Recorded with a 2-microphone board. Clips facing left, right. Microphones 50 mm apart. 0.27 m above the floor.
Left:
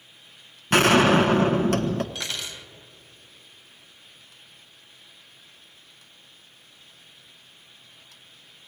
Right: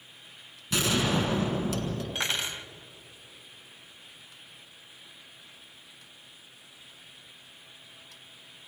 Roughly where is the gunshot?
Left.